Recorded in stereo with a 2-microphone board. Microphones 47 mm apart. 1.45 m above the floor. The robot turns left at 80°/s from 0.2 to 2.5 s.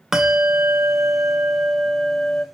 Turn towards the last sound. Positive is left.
turn(degrees=155)